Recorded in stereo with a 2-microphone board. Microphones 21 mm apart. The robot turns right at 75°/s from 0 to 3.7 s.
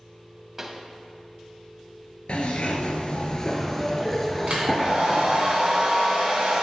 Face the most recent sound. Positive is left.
turn(degrees=-70)  # may be behind; listen again after turning